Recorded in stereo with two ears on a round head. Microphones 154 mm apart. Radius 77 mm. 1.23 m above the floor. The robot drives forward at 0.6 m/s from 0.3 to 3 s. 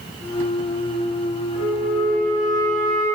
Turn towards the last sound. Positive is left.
turn(degrees=0)  # may be behind; listen again after turning